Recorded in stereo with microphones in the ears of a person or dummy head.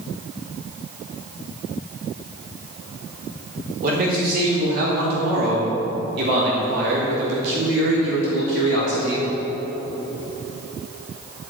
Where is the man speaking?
55° right (ahead or behind), 3.5 m; by 9.3 s 70° right (ahead or behind), 1.4 m.